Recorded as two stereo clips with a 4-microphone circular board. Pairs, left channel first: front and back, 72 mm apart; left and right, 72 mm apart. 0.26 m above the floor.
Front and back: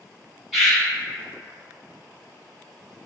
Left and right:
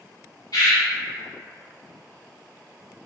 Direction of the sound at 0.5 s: 95° left.